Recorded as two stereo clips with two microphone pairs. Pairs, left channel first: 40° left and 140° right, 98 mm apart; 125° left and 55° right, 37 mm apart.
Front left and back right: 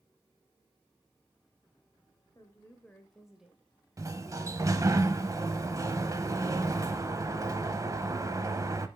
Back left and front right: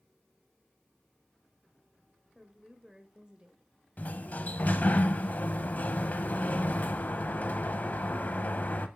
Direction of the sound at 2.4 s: 25° left.